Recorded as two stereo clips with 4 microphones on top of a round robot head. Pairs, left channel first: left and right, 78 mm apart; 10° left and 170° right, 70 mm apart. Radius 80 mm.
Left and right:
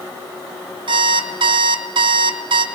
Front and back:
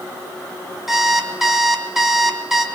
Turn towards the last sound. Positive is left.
turn(degrees=-85)